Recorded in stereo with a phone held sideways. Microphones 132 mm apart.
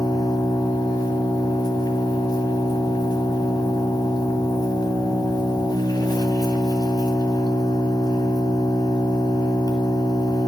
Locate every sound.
0.0 s an engine running: 30° left (ahead or behind), 1.4 m